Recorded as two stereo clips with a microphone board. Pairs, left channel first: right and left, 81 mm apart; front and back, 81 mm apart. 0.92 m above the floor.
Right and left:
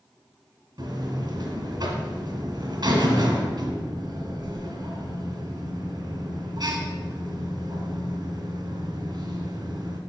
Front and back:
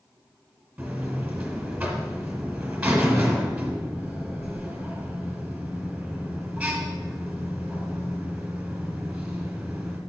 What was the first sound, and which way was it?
A buzzer, 105° left.